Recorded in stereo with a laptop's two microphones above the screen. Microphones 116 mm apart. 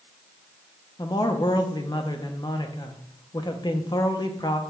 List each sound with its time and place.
1.0 s a man speaking: 40° left (ahead or behind), 0.7 m